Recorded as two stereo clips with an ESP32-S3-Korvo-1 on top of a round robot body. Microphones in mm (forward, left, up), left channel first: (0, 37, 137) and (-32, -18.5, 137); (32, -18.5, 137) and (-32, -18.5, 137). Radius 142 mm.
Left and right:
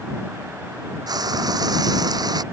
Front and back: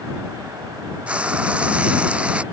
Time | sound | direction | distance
1.1 | frying | 105° right | ?